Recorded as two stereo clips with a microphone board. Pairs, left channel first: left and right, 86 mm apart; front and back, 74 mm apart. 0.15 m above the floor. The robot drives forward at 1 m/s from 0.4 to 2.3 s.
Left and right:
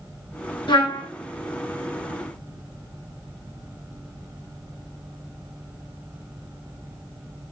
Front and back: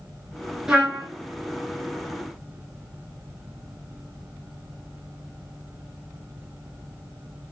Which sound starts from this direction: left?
A trumpet, at 0.7 s.